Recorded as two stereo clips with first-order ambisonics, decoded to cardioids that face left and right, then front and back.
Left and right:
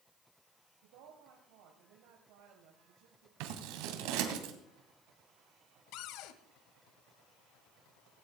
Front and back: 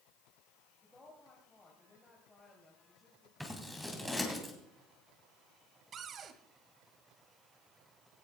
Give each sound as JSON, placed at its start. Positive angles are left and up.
{"t": 0.8, "sound": "a woman speaking", "azimuth_deg": -85, "distance_m": 2.5}
{"t": 3.4, "sound": "scissors", "azimuth_deg": -90, "distance_m": 2.5}
{"t": 5.9, "sound": "a cupboard door", "azimuth_deg": 120, "distance_m": 1.1}